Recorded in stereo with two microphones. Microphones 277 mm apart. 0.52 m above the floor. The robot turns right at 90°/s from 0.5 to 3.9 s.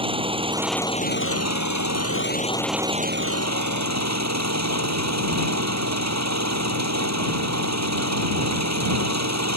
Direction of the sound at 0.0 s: 20° right.